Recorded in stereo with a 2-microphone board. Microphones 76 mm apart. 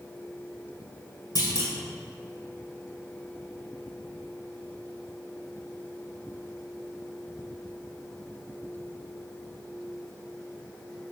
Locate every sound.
1.4 s a clunk: 70° left (ahead or behind), 2.5 m